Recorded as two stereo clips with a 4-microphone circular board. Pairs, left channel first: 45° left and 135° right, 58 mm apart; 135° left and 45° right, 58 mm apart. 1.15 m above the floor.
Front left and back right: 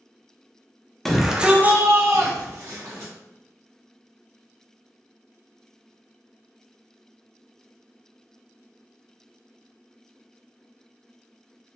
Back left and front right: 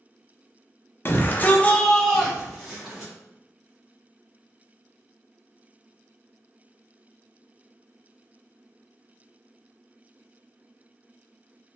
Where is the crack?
No crack in this recording.